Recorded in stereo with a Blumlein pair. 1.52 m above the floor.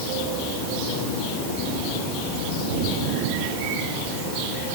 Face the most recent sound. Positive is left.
No sound to turn to.